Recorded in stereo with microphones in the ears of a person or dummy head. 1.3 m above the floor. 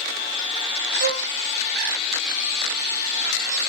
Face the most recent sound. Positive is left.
turn(degrees=-65)  # may be behind; listen again after turning